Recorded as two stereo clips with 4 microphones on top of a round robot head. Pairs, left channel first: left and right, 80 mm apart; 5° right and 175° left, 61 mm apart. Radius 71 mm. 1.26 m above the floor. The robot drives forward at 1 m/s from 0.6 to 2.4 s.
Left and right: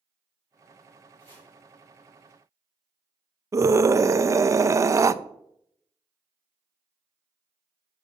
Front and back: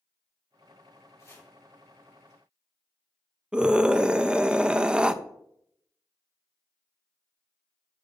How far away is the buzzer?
I don't hear a buzzer.